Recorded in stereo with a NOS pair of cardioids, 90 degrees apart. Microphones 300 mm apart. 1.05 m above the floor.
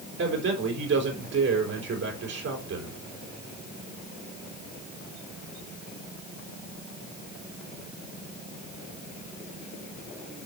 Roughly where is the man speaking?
Ahead right.